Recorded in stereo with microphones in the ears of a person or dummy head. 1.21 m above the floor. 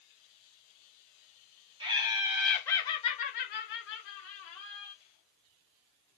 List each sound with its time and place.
1.8 s laughter: 35° right (ahead or behind), 0.7 m; by 4.9 s 70° left (ahead or behind), 1.3 m